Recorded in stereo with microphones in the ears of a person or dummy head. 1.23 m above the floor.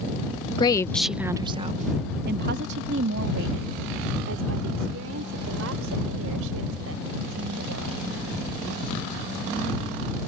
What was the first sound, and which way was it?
A woman speaking, 35° left (ahead or behind).